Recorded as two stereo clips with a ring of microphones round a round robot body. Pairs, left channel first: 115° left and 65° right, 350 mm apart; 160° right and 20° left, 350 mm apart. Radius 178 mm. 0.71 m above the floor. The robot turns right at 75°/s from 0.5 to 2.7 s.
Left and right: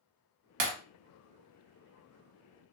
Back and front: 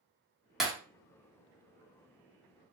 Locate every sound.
0.6 s breaking glass: 65° right, 1.2 m; by 0.7 s 60° right, 1.2 m